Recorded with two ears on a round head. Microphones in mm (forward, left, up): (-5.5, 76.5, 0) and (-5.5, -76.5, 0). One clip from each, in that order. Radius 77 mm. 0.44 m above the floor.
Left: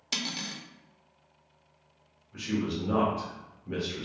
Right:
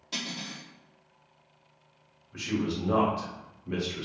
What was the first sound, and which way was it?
Cutlery clinking, 55° left (ahead or behind).